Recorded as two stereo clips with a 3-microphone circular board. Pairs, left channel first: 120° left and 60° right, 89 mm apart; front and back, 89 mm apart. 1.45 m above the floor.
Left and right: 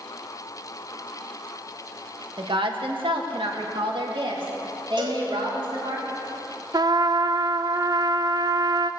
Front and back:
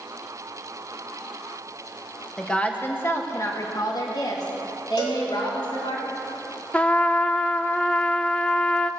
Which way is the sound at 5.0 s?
30° right.